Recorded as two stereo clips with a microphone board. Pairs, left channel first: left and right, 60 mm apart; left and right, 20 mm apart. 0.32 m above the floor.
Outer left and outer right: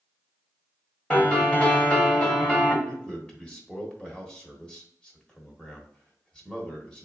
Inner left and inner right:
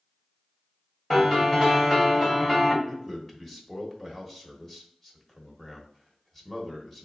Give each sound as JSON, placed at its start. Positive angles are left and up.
{"t": 1.1, "sound": "a piano", "side_deg": 15, "distance_m": 1.6}
{"t": 2.9, "sound": "a man speaking", "side_deg": 15, "distance_m": 1.2}